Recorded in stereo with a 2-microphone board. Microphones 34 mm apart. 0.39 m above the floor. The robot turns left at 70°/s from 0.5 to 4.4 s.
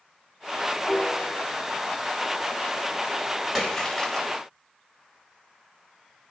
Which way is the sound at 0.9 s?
145° left.